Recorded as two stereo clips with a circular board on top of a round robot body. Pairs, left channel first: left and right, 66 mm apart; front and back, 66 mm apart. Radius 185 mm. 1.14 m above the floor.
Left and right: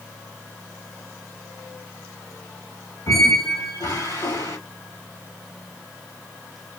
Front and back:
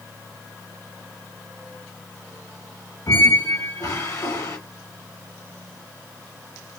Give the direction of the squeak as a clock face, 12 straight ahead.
10 o'clock.